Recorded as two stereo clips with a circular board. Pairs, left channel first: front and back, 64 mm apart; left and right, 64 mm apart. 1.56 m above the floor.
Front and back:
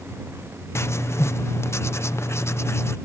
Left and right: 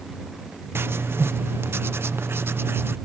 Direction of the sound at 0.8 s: 40° right.